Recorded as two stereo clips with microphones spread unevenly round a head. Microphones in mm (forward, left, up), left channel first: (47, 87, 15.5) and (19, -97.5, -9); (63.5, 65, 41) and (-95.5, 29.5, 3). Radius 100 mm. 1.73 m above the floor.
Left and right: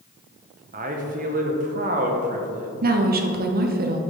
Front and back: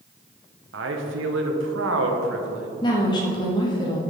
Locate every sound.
0.7 s a man speaking: 150° right, 1.0 m
2.8 s a woman speaking: 55° right, 0.9 m